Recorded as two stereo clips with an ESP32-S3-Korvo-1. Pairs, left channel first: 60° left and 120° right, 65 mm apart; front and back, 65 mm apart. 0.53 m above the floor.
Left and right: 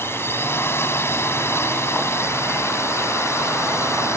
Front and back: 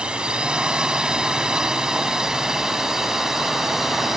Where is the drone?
105° left; by 4.2 s 95° left.